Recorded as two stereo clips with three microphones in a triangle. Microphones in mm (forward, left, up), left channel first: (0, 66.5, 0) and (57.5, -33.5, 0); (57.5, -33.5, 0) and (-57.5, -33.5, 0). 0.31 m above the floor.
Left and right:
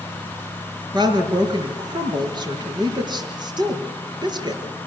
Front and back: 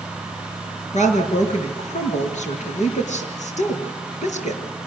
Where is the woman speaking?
10° right, 5.5 m.